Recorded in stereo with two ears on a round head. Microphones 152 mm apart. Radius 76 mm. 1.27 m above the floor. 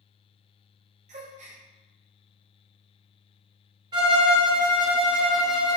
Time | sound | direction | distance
1.1 | a gasp | 45° right (ahead or behind) | 0.7 m
3.9 | a violin | 25° right (ahead or behind) | 0.7 m